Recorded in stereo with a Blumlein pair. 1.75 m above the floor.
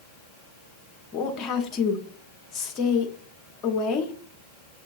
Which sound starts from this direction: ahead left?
A woman speaking, at 1.1 s.